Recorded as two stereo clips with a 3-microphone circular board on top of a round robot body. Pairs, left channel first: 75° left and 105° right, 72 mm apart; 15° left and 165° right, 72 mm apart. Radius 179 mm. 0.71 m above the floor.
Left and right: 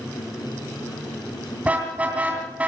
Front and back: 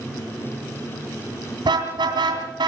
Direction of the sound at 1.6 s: 175° right.